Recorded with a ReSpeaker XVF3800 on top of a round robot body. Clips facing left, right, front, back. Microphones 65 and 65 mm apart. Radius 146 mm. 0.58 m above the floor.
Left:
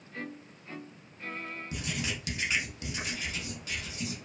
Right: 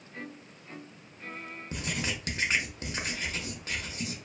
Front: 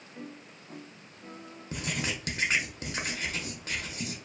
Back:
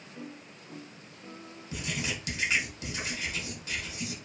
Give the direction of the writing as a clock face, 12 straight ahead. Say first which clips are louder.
Right 3 dB, front 1 dB; 1 o'clock.